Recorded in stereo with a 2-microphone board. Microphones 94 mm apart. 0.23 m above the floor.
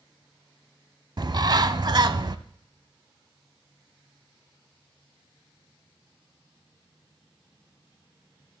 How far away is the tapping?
No tapping in this recording.